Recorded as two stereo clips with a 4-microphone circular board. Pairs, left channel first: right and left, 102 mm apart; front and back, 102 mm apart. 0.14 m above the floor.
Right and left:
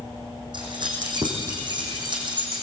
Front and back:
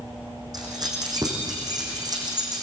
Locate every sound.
0.5 s keys jangling: 130° left, 5 m